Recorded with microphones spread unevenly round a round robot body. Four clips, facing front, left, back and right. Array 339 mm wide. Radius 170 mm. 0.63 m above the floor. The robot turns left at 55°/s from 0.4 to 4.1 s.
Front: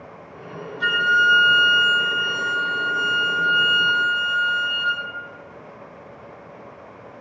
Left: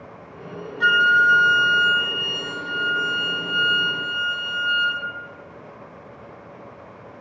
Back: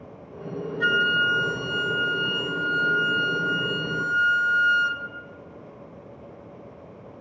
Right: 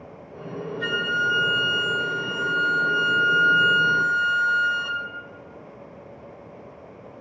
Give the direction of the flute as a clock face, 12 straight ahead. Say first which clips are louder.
Left 9 dB, front 4 dB; 8 o'clock.